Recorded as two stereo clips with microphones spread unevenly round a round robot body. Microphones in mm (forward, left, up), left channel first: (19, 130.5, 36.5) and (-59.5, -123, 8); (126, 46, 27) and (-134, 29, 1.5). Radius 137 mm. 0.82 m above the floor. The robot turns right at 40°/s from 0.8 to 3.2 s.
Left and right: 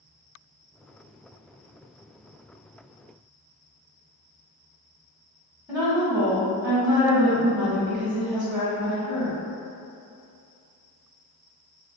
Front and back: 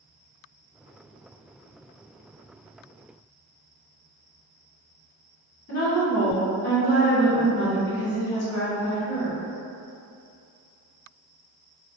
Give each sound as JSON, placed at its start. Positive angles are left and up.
{"t": 5.7, "sound": "a woman speaking", "azimuth_deg": -50, "distance_m": 1.1}